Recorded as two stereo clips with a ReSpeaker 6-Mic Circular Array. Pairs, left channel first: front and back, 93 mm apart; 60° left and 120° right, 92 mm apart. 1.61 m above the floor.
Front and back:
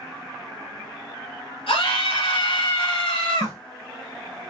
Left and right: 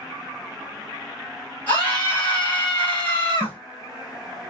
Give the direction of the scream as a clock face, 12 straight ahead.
12 o'clock.